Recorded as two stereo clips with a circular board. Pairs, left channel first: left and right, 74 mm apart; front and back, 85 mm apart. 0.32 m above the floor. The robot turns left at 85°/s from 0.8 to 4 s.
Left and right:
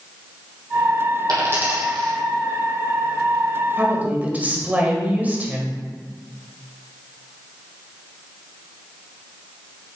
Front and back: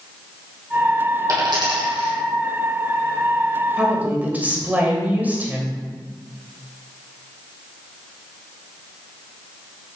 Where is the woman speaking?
110° right, 1.4 m; by 5.8 s 130° right, 1.4 m.